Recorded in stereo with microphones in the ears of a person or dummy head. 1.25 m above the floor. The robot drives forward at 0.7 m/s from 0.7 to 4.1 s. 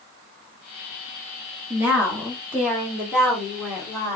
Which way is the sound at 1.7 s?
10° right (ahead or behind).